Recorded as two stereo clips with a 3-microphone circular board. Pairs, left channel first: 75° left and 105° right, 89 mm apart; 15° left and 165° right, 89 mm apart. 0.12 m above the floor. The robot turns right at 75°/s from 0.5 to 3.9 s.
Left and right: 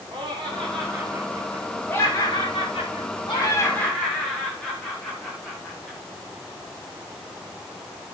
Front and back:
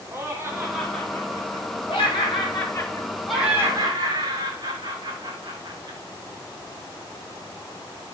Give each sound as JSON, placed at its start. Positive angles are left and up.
{"t": 0.1, "sound": "laughter", "azimuth_deg": -100, "distance_m": 6.5}